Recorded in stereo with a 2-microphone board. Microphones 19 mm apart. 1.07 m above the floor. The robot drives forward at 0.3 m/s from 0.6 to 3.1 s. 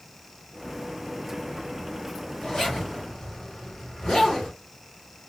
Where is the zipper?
45° left (ahead or behind), 3.5 m; by 4.5 s 40° left (ahead or behind), 3.5 m.